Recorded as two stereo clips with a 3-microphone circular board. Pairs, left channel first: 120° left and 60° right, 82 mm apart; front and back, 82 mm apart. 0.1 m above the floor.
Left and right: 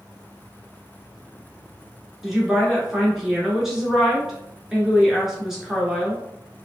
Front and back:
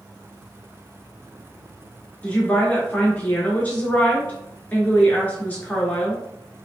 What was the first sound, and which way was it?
A woman speaking, 15° left.